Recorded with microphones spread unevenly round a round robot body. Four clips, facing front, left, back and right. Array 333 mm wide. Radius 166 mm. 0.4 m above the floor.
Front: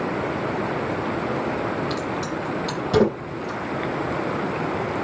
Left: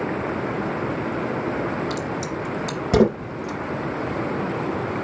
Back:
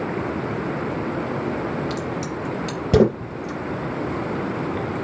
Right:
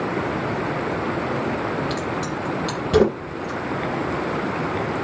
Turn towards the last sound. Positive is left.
turn(degrees=170)